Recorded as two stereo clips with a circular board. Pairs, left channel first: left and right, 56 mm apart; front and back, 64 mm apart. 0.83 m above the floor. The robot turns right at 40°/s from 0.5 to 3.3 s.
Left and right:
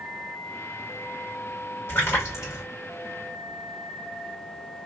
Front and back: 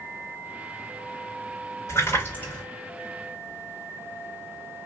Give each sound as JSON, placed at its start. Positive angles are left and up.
{"t": 1.9, "sound": "a splash", "azimuth_deg": 45, "distance_m": 3.0}